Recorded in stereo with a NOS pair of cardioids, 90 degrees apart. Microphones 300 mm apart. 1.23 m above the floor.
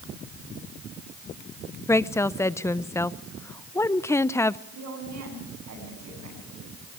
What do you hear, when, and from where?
1.9 s a woman speaking: 10° left, 0.6 m
4.7 s a woman speaking: 60° right, 8.5 m